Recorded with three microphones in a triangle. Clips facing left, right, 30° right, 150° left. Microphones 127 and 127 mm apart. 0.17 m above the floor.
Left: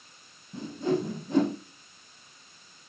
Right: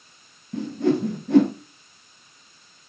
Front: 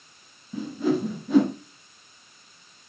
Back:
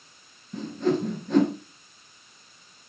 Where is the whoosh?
115° right, 1.5 m.